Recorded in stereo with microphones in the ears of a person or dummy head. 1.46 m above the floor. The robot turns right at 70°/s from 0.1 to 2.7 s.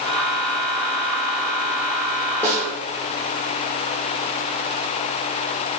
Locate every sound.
2.4 s a snare drum: 10° left (ahead or behind), 1.1 m; by 2.7 s 5° right (ahead or behind), 1.1 m